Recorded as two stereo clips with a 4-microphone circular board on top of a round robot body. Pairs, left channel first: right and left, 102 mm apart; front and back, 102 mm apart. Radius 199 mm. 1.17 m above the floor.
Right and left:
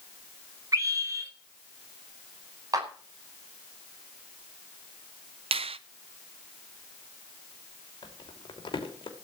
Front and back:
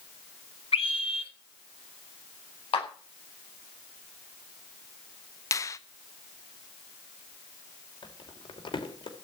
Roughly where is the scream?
Ahead left.